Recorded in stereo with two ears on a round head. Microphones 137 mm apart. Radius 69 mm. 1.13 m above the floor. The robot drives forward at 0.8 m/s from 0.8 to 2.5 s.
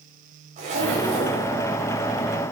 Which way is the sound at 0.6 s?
50° right (ahead or behind).